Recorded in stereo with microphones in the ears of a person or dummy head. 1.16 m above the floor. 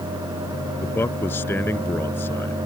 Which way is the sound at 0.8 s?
10° left (ahead or behind).